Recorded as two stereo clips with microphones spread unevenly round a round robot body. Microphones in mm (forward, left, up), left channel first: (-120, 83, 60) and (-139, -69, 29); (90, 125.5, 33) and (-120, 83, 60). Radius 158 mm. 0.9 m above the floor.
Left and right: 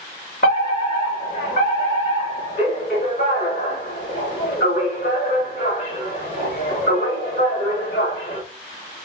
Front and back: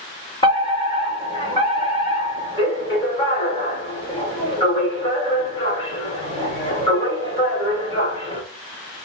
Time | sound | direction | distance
0.4 | a fire alarm | 70° left | 3 m